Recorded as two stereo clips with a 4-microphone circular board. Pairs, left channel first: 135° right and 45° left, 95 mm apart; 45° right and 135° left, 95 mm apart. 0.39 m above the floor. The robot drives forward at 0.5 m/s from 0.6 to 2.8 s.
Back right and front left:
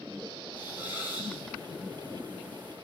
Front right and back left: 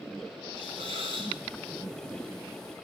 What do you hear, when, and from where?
0.6 s a hiss: 115° left, 9.5 m